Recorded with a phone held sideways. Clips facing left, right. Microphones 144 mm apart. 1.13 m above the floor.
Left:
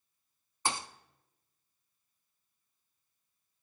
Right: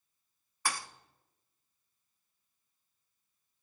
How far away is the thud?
About 0.6 m.